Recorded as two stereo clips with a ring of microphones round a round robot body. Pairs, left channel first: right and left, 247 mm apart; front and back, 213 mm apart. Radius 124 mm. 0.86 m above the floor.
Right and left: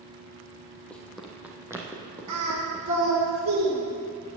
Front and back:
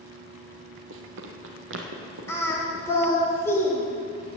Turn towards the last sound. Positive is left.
turn(degrees=80)